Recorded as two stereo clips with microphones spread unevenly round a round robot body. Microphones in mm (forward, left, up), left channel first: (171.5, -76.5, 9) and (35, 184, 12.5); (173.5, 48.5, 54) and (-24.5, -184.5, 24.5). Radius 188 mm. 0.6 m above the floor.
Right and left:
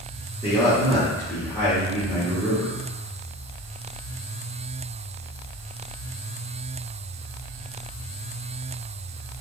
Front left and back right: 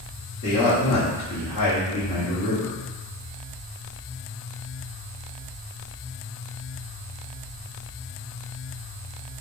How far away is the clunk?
No clunk in this recording.